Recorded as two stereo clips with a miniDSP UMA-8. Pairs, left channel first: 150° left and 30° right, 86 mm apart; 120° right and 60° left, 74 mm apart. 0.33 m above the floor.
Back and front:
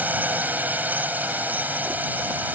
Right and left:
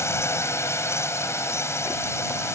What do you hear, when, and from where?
0.0 s a drone: 90° right